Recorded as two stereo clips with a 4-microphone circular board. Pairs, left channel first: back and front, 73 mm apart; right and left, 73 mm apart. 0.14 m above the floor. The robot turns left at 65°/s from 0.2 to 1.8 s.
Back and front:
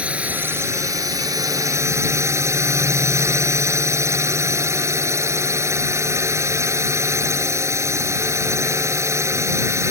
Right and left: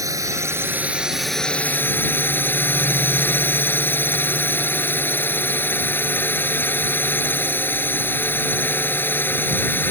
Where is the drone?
65° left; by 9.9 s 35° right.